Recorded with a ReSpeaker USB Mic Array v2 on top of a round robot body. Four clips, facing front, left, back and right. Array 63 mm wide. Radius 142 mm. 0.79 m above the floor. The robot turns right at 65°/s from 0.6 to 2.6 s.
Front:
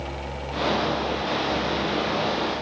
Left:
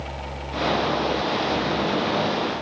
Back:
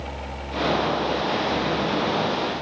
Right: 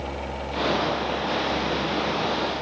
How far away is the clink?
I don't hear a clink.